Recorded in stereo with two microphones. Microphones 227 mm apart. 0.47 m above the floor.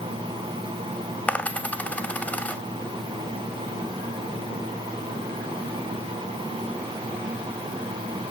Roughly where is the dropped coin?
Centre.